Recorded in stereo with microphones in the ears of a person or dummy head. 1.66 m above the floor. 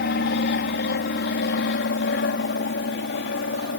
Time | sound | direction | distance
0.0 | an aircraft | 55° left (ahead or behind) | ?